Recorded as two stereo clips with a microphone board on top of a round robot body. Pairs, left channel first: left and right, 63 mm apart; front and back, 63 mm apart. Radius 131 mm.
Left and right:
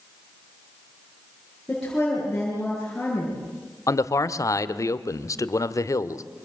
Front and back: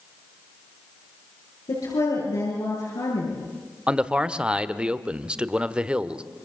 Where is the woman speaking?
10° left, 8 m.